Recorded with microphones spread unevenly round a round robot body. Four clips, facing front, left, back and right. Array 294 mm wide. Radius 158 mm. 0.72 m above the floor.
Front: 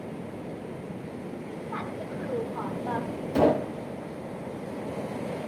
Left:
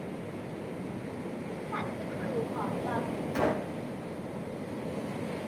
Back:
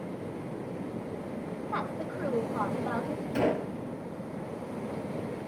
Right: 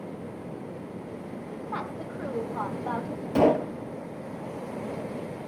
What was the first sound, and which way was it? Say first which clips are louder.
A woman speaking: right 2 dB, back 1 dB; 155° right.